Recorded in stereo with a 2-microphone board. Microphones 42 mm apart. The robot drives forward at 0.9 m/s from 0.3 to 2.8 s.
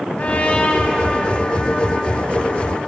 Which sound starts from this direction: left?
A trumpet, at 0.2 s.